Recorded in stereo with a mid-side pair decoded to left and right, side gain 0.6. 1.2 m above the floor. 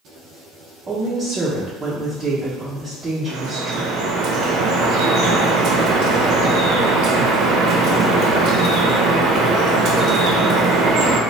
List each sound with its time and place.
0.9 s a woman speaking: 25° right, 0.9 m
3.3 s dripping: 60° right, 0.7 m